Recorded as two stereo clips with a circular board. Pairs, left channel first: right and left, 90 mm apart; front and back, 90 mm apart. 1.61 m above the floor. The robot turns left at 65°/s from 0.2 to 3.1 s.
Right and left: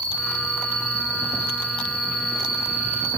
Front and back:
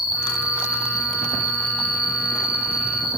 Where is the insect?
150° right, 1.9 m; by 3.2 s 20° left, 1.9 m.